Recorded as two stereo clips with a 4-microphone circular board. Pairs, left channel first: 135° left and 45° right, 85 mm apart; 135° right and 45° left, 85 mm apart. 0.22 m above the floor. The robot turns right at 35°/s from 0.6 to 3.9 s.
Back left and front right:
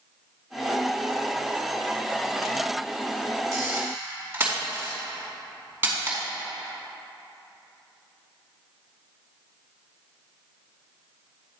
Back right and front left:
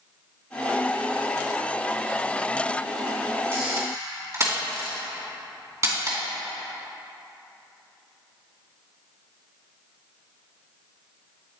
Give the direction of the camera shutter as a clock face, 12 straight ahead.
12 o'clock.